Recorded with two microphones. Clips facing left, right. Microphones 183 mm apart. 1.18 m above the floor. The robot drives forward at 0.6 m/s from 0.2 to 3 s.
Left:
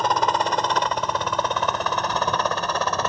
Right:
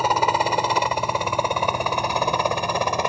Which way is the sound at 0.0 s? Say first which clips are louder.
Right 1 dB; 10° right (ahead or behind).